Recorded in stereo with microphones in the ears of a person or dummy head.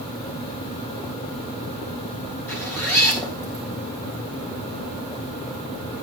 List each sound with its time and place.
2.5 s a zipper: 10° left (ahead or behind), 3.5 m